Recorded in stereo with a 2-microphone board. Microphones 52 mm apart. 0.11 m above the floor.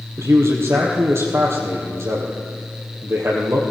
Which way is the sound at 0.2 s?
65° right (ahead or behind).